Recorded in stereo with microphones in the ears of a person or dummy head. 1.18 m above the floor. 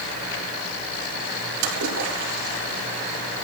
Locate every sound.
1.6 s a splash: 75° right (ahead or behind), 5.5 m